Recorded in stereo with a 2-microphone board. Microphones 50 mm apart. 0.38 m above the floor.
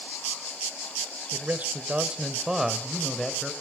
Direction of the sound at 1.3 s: 40° right (ahead or behind).